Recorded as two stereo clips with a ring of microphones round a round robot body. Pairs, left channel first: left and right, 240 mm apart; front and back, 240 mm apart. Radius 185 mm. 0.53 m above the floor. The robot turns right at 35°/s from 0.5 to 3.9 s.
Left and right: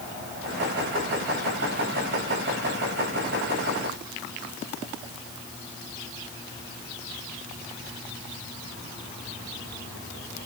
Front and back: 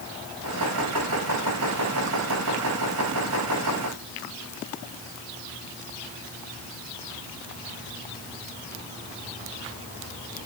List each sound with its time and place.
Only background noise.